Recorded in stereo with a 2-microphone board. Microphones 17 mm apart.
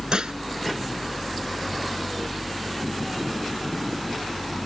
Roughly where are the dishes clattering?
Right.